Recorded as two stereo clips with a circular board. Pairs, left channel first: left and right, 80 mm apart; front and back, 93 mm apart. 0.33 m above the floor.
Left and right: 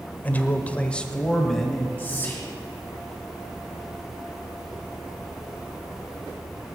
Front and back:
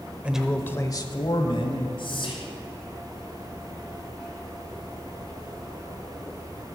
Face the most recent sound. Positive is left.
turn(degrees=25)